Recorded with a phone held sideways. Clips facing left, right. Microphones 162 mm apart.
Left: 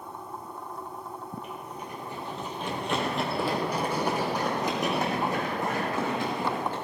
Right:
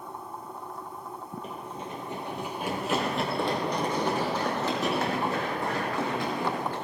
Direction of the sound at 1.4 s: 35° right (ahead or behind).